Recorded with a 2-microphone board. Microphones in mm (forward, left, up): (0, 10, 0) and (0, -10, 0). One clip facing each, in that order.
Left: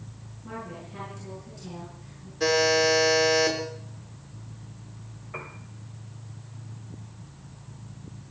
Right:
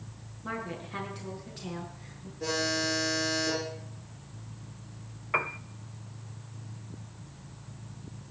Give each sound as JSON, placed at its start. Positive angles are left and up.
{"t": 0.4, "sound": "a woman speaking", "side_deg": -80, "distance_m": 9.0}
{"t": 2.4, "sound": "a buzzer", "side_deg": 70, "distance_m": 7.0}
{"t": 5.3, "sound": "a piano", "side_deg": -50, "distance_m": 0.8}